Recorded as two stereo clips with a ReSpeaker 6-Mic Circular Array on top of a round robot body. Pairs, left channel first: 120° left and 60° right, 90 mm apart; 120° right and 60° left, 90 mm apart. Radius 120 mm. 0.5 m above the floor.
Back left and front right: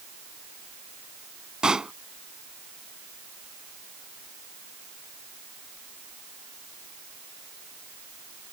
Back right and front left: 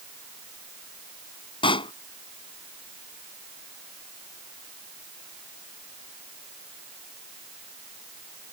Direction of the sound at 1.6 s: 140° right.